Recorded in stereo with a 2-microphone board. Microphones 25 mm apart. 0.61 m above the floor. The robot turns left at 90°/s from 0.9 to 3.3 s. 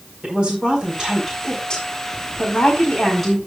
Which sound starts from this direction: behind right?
A woman speaking, at 0.2 s.